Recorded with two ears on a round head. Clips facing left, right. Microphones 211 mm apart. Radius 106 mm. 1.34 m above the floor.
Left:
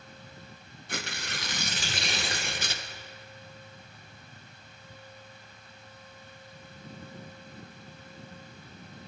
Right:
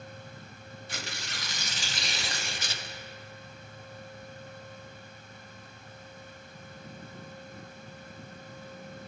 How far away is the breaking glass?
I don't hear breaking glass.